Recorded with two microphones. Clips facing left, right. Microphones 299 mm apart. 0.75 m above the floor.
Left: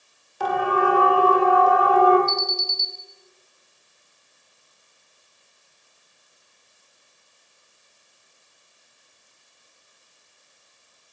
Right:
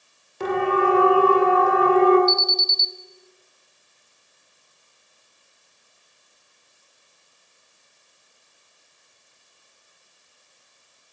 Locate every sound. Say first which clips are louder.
0.4 s a siren: right 2 dB; 30° right (ahead or behind), 3 m
2.3 s an alarm: right 4 dB; 45° right (ahead or behind), 1.4 m